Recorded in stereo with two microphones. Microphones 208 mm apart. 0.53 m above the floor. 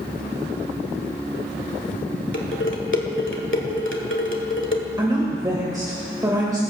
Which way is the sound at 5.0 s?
20° right (ahead or behind).